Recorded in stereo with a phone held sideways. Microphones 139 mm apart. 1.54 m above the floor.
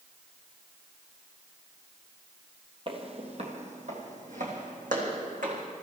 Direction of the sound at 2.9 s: 40° right (ahead or behind).